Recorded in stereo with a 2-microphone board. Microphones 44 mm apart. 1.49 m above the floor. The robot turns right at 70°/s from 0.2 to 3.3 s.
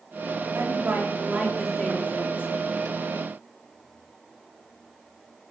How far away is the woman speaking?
About 4.5 m.